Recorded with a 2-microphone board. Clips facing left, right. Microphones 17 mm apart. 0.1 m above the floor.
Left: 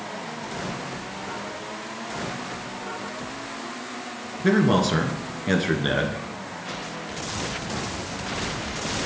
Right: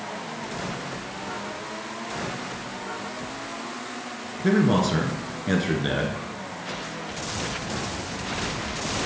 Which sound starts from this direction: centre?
A man speaking, at 4.4 s.